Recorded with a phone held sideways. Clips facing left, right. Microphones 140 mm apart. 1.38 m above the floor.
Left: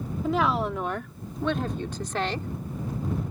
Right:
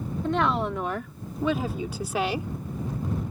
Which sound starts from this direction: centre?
A woman speaking, at 0.2 s.